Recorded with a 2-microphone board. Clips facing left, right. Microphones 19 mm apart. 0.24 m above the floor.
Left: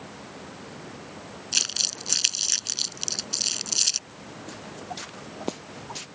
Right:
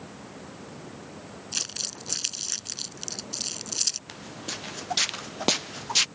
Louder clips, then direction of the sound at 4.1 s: Right 4 dB; 70° right (ahead or behind).